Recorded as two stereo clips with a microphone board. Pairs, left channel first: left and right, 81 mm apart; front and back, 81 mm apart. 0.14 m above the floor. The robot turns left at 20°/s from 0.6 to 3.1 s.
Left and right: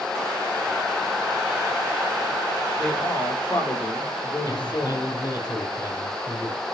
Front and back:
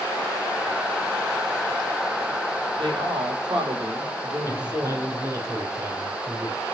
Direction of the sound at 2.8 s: 170° left.